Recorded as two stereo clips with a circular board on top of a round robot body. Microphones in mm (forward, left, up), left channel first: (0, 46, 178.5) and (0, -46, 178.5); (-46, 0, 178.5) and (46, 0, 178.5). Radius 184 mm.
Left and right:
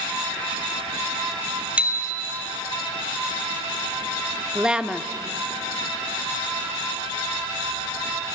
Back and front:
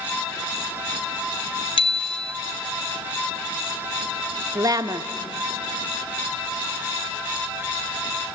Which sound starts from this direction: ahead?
A woman speaking, at 4.5 s.